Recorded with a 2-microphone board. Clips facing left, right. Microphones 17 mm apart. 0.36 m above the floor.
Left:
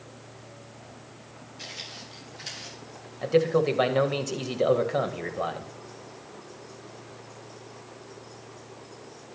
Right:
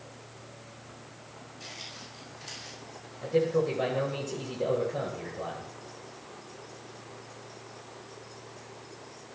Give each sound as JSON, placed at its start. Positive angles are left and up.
{"t": 1.6, "sound": "footsteps", "side_deg": 60, "distance_m": 8.5}
{"t": 3.2, "sound": "a man speaking", "side_deg": 45, "distance_m": 1.7}